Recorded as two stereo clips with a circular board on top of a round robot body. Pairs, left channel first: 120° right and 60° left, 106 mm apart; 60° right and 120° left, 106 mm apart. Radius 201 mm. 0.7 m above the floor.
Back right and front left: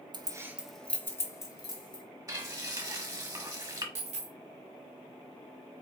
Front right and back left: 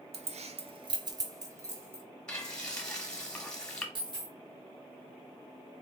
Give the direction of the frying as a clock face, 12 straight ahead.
11 o'clock.